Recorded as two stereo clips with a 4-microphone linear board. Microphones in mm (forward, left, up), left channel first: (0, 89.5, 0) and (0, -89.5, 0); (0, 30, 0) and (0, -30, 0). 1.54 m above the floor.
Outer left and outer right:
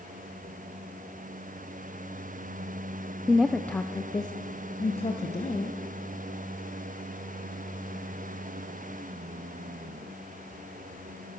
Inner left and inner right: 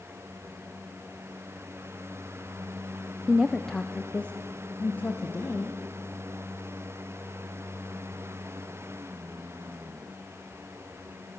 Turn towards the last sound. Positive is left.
turn(degrees=45)  # may be behind; listen again after turning